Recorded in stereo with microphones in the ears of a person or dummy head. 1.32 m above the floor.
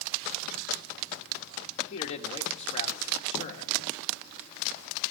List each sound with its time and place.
1.9 s a man speaking: 35° left (ahead or behind), 1.7 m